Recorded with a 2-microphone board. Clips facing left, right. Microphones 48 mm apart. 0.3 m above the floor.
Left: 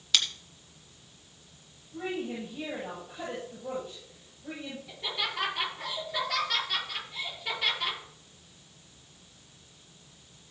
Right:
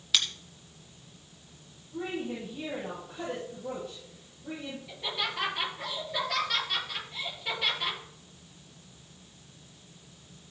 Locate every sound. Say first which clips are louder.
0.1 s scissors: left 1 dB; 5° right (ahead or behind), 1.9 m
1.9 s a woman speaking: even; 5° left (ahead or behind), 7 m
4.9 s laughter: even; 5° right (ahead or behind), 7.5 m